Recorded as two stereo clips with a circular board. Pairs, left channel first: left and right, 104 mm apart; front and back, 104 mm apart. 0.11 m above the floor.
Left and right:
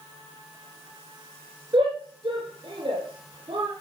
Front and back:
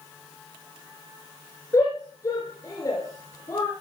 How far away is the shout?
About 4.5 m.